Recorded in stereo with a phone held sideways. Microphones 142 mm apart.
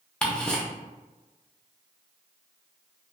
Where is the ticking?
5° left (ahead or behind), 0.6 m.